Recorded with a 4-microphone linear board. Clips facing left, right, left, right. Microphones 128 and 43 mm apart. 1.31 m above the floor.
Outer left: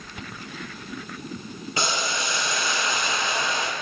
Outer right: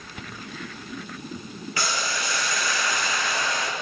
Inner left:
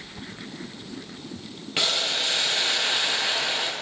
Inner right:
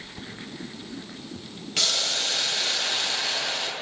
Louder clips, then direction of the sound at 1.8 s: Outer left 2 dB, inner left 2 dB; 20° left (ahead or behind).